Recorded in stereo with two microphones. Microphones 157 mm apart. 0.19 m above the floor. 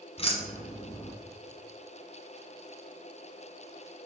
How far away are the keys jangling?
About 1.2 m.